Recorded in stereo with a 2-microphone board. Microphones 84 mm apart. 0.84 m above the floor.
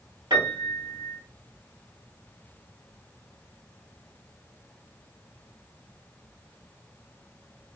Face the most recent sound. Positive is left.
turn(degrees=-60)  # may be behind; listen again after turning